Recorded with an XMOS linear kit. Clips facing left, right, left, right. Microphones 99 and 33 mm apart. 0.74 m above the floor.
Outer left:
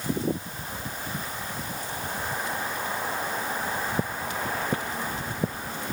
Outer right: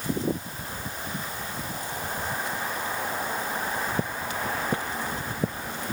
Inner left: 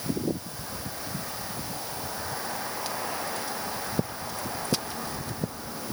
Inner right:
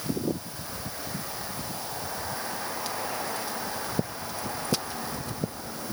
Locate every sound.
Only background noise.